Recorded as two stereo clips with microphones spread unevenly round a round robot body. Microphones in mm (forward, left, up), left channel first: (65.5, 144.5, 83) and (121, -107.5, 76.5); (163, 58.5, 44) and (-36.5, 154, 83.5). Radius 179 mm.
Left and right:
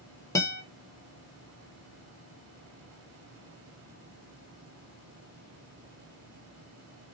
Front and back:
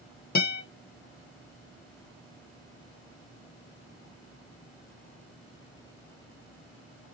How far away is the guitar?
About 1.4 m.